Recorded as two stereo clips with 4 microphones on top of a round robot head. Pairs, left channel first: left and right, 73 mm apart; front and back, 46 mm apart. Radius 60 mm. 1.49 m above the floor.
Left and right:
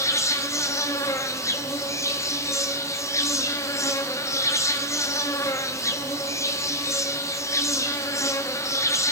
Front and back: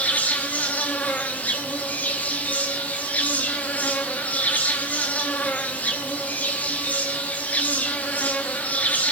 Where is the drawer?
No drawer in this recording.